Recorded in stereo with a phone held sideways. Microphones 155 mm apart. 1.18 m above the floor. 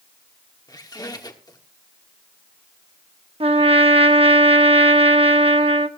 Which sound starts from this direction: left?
A squeak, at 0.7 s.